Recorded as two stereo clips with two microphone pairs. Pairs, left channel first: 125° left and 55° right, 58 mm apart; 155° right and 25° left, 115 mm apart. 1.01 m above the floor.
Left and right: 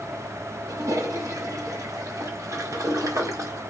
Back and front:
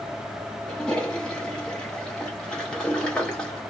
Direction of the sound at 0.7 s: 75° right.